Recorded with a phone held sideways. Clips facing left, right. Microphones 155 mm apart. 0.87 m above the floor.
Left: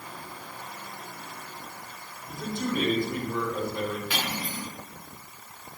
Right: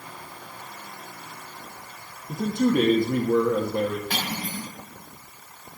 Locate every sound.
2.3 s a man speaking: 60° right (ahead or behind), 1.4 m
4.1 s cutlery clinking: 45° right (ahead or behind), 6.5 m